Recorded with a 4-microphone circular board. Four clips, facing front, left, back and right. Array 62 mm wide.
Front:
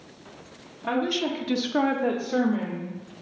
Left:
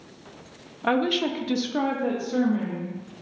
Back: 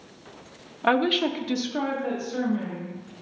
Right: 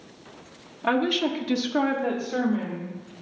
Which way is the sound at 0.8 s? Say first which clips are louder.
Even, back 4 dB; 170° left.